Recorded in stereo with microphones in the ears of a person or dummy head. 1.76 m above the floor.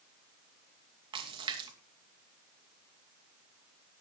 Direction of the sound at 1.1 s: 30° right (ahead or behind).